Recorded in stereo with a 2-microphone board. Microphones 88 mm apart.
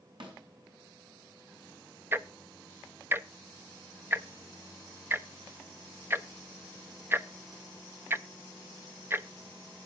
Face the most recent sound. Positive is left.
turn(degrees=-25)  # may be behind; listen again after turning